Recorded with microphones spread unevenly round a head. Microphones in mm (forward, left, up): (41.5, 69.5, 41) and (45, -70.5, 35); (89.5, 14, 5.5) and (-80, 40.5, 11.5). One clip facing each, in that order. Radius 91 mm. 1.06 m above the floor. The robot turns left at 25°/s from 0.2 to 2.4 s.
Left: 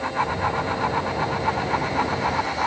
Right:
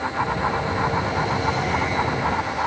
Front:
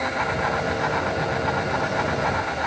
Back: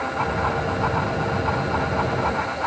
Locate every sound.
Only background noise.